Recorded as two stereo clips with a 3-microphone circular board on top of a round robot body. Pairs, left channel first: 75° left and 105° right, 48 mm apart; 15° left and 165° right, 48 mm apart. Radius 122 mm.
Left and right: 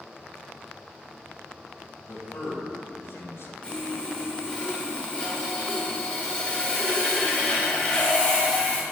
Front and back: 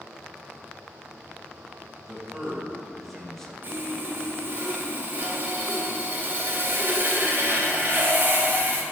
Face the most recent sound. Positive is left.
turn(degrees=140)